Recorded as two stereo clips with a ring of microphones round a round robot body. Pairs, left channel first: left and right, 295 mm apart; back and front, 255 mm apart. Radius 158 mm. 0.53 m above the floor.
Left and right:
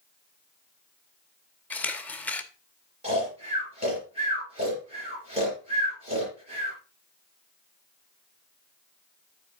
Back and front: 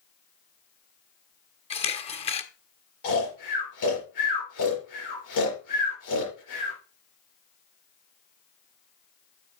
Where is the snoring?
160° right, 6 m.